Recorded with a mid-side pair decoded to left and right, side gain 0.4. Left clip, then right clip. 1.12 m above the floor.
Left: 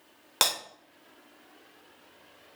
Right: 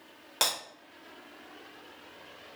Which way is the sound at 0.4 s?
45° left.